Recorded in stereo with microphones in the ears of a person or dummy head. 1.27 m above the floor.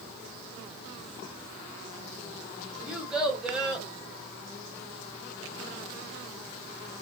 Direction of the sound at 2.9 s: Centre (ahead or behind).